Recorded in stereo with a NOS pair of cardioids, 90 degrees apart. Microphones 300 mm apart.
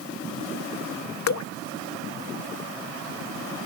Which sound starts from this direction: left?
Dripping, at 1.3 s.